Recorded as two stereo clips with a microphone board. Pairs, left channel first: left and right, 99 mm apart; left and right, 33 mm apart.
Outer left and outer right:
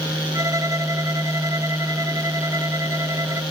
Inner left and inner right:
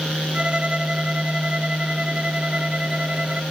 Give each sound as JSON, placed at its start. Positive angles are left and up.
{"t": 0.3, "sound": "a violin", "side_deg": -35}